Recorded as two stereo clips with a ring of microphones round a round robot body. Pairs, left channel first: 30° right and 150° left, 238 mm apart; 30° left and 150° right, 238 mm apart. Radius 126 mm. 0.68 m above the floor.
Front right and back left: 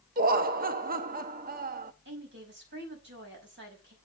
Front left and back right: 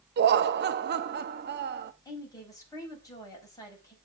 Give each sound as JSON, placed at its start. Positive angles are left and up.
{"t": 0.2, "sound": "laughter", "azimuth_deg": -175, "distance_m": 0.8}
{"t": 2.0, "sound": "a woman speaking", "azimuth_deg": 105, "distance_m": 4.5}